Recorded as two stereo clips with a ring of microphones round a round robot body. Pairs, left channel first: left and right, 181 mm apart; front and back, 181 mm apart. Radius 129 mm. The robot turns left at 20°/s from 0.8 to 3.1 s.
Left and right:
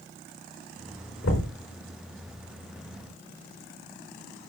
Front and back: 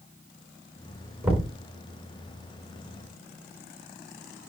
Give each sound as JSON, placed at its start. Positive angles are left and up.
{"t": 1.2, "sound": "knocking", "azimuth_deg": 100, "distance_m": 4.5}